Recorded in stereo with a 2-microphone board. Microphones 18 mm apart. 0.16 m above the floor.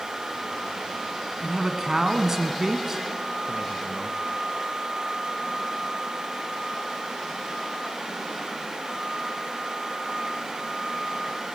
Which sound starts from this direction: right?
A man speaking, at 1.4 s.